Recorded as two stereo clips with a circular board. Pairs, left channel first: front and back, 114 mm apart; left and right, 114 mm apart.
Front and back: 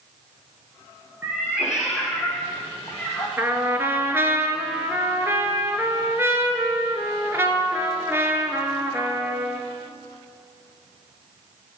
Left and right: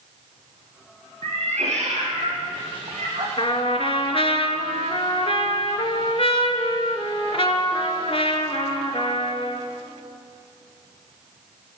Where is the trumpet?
110° left, 0.6 m.